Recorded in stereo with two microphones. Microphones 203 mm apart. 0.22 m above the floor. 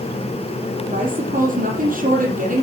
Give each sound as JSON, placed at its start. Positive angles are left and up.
{"t": 0.9, "sound": "a woman speaking", "side_deg": -45, "distance_m": 5.5}